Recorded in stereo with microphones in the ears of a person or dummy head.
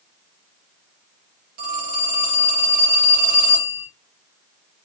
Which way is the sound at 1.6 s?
40° right (ahead or behind).